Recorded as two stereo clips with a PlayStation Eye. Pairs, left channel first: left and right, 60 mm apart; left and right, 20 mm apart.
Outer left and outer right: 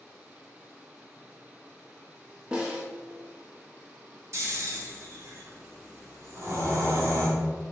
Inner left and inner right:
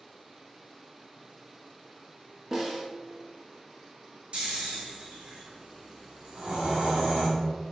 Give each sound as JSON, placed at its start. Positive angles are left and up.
{"t": 2.5, "sound": "a snare drum", "side_deg": -15, "distance_m": 0.8}
{"t": 4.3, "sound": "snoring", "side_deg": -50, "distance_m": 1.2}